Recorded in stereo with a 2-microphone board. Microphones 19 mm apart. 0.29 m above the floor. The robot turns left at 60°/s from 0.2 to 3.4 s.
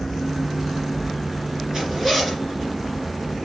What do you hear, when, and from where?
1.7 s a zipper: 145° right, 2.5 m; by 2.4 s 175° left, 2.5 m